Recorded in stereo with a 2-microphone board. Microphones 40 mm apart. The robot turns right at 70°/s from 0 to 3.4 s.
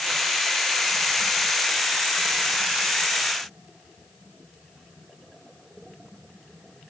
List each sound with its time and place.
Only background noise.